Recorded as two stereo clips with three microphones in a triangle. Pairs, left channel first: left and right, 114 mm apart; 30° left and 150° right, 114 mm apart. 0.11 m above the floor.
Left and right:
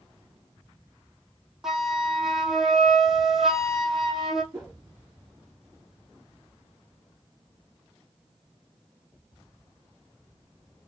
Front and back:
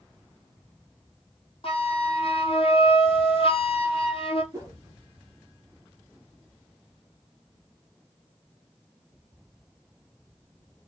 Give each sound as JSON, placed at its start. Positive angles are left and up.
{"t": 1.6, "sound": "a flute", "azimuth_deg": -5, "distance_m": 0.9}
{"t": 4.5, "sound": "a whoosh", "azimuth_deg": -115, "distance_m": 1.6}